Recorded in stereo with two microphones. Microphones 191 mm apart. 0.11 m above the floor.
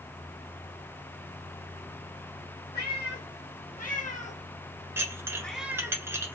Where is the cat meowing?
55° left (ahead or behind), 2.5 m; by 6.0 s 20° right (ahead or behind), 0.8 m.